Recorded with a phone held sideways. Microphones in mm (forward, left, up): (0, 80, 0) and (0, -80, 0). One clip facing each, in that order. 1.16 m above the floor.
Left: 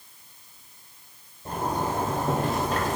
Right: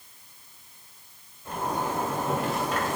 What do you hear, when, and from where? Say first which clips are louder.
1.4 s a zipper: left 2 dB; 40° left (ahead or behind), 3 m